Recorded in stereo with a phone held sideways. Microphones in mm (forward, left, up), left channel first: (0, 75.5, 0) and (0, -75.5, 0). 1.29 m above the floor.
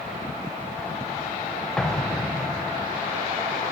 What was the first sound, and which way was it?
An explosion, 5° left (ahead or behind).